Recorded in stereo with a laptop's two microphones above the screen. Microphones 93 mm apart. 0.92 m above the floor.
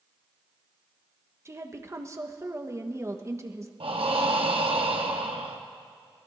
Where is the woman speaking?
30° right (ahead or behind), 1.0 m.